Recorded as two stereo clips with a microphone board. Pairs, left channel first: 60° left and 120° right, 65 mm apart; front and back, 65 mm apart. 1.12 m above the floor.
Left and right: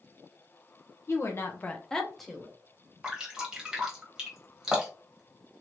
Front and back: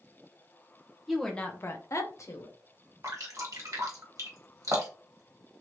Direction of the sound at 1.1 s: 95° left.